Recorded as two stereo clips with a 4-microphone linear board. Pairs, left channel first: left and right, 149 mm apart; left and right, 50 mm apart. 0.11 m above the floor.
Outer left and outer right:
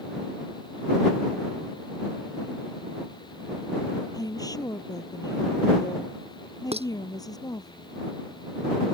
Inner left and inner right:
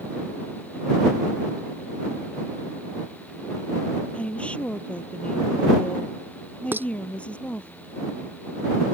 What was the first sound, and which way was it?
A woman speaking, 25° left (ahead or behind).